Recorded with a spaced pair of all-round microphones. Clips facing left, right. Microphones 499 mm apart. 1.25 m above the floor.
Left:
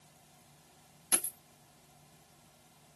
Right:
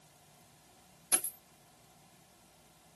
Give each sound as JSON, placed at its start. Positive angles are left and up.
{"t": 1.1, "sound": "a dropped coin", "side_deg": 15, "distance_m": 1.9}